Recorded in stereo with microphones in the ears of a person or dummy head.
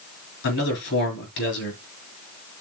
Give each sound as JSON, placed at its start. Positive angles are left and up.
{"t": 0.4, "sound": "a man speaking", "side_deg": 65, "distance_m": 5.0}